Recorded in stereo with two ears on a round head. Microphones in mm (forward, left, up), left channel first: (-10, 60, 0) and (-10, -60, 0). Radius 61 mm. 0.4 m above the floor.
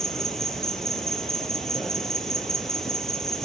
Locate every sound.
0.0 s an insect: centre (ahead or behind), 0.7 m